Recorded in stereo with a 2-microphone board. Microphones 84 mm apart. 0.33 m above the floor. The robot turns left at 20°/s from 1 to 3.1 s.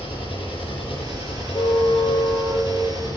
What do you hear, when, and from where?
0.0 s an engine running: 90° left, 9.5 m; by 3.2 s 45° left, 9.5 m
1.5 s a car horn: 50° left (ahead or behind), 6.5 m; by 2.7 s 30° left (ahead or behind), 6.5 m